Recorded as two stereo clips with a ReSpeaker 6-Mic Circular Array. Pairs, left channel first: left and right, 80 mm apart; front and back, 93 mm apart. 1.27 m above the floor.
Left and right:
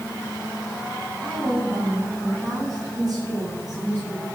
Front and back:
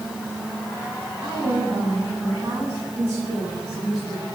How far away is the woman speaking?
About 9.5 m.